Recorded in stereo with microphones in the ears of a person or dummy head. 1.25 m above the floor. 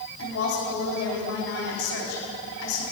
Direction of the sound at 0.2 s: 75° left (ahead or behind).